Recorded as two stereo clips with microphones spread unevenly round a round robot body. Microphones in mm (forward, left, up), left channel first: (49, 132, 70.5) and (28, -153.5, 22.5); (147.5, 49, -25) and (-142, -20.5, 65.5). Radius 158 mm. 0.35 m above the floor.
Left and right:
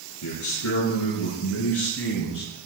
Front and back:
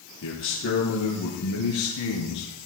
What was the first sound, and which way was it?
A man speaking, 60° left.